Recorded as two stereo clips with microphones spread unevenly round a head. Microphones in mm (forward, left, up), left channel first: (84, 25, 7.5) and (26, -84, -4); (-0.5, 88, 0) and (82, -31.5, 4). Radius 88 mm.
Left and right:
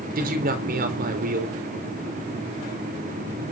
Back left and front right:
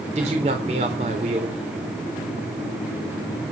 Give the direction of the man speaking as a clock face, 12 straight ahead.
4 o'clock.